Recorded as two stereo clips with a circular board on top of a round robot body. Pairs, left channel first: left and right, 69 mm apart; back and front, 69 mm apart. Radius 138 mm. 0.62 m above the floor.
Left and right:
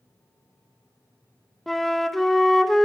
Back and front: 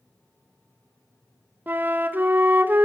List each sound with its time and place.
1.7 s a flute: 10° left, 1.1 m